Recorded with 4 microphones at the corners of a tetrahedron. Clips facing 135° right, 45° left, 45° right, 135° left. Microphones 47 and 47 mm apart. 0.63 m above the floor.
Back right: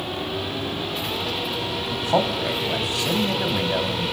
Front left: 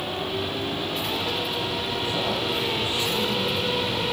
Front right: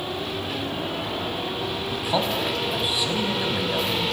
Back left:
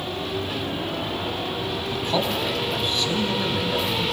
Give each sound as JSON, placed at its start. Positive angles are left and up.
{"t": 1.9, "sound": "a man speaking", "azimuth_deg": -130, "distance_m": 4.5}